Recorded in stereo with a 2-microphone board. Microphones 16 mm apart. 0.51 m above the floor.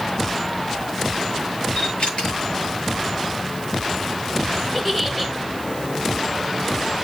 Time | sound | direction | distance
1.8 | a camera shutter | 70° left (ahead or behind) | 7 m
4.7 | a giggle | 5° left (ahead or behind) | 1.8 m